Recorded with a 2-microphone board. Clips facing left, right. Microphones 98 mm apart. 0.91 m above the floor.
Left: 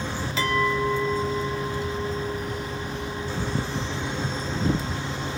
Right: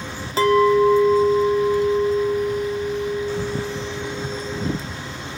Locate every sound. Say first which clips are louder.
0.4 s a clink: right 10 dB; 40° right (ahead or behind), 0.6 m